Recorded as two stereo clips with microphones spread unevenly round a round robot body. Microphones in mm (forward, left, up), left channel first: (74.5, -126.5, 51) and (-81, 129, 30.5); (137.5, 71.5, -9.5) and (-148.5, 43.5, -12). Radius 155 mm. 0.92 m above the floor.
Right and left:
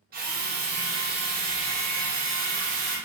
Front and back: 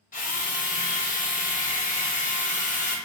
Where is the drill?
65° left, 0.6 m.